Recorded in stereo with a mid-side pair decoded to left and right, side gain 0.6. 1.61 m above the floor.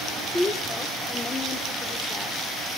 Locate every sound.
0.2 s a woman speaking: 20° left, 0.8 m